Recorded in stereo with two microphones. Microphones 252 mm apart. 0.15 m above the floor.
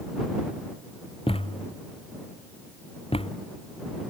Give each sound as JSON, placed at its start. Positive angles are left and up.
{"t": 1.3, "sound": "a thud", "side_deg": 20}